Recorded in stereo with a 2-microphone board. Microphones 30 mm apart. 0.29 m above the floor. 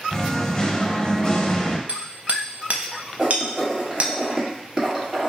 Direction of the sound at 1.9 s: 50° right (ahead or behind).